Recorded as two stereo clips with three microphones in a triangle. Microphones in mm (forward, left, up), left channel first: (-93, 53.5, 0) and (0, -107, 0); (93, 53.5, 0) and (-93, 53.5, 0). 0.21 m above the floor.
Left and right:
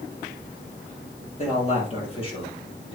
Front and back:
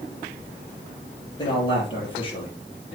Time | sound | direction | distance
1.4 | a man speaking | 65° left | 4 m